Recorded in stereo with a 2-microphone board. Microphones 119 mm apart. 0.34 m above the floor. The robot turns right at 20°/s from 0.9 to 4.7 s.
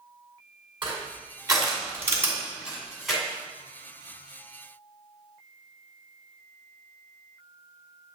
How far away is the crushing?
About 2.5 m.